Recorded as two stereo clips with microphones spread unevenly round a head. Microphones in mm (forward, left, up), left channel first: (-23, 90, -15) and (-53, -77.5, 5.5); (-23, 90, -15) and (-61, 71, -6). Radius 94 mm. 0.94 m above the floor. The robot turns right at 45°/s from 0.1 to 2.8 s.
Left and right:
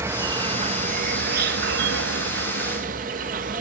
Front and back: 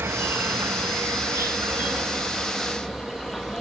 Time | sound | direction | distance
0.0 | an insect | 175° right | 1.2 m